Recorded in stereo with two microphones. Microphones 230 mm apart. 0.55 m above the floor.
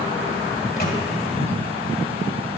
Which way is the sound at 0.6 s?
40° left (ahead or behind).